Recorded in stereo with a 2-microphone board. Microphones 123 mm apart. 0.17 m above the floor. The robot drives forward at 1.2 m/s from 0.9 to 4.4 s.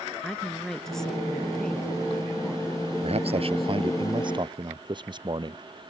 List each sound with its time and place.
0.2 s a woman speaking: 5° left (ahead or behind); by 4.0 s centre (ahead or behind)
3.0 s a man speaking: 55° right (ahead or behind); by 5.6 s 40° right (ahead or behind)